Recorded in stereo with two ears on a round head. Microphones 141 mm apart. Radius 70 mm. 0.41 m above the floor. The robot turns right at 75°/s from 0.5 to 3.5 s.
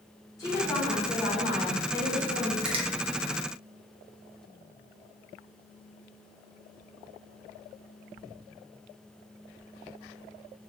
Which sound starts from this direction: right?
A finger snap, at 2.6 s.